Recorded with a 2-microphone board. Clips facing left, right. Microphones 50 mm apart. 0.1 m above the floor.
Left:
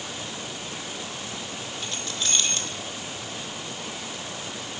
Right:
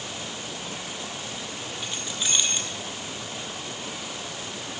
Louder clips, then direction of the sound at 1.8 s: Even; 15° right (ahead or behind).